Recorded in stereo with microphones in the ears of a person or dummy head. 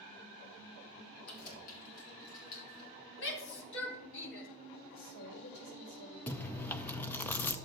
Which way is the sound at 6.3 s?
15° left (ahead or behind).